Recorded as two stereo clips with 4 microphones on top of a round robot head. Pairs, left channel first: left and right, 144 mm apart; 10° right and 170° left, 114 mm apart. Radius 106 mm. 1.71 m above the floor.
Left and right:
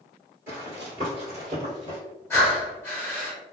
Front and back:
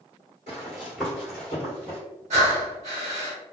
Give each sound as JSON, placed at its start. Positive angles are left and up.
{"t": 0.5, "sound": "running footsteps", "azimuth_deg": -140, "distance_m": 1.8}
{"t": 2.3, "sound": "breathing", "azimuth_deg": 160, "distance_m": 0.9}